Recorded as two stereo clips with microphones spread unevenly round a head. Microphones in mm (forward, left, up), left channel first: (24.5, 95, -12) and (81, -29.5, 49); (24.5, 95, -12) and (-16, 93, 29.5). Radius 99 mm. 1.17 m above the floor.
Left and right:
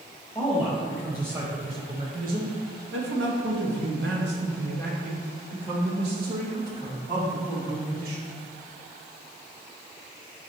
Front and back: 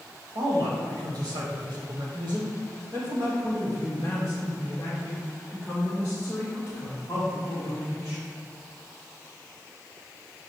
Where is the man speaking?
170° right, 1.5 m; by 8.3 s 50° right, 3.5 m.